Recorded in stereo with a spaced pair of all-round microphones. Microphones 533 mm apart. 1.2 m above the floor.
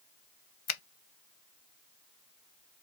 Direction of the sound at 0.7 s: 65° left (ahead or behind).